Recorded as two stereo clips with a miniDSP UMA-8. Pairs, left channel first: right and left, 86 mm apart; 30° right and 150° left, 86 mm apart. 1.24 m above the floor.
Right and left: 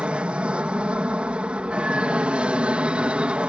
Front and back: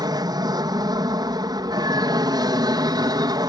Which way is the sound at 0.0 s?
165° left.